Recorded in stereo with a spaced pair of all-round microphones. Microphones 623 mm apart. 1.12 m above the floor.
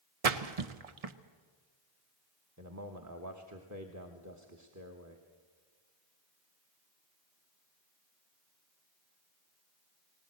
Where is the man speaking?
25° right (ahead or behind), 1.3 m.